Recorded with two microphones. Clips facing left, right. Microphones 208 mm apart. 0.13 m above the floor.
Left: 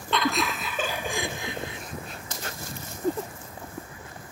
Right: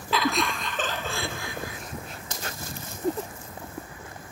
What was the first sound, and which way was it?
Laughter, 5° right (ahead or behind).